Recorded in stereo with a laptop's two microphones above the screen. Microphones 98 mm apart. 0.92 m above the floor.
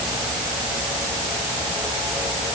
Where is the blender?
I don't hear a blender.